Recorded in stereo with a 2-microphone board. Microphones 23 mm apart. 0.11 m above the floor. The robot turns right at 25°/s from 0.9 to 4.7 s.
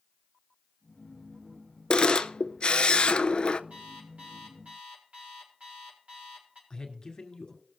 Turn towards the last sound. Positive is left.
turn(degrees=30)  # may be behind; listen again after turning